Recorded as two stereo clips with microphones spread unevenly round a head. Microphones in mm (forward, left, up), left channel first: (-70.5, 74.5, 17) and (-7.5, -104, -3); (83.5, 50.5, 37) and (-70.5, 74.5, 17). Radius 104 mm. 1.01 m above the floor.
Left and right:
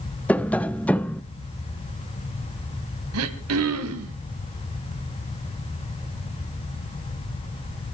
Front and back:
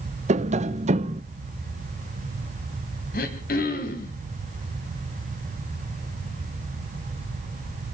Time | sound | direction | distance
0.3 | tapping | 165° right | 0.8 m
3.1 | throat clearing | 60° right | 2.5 m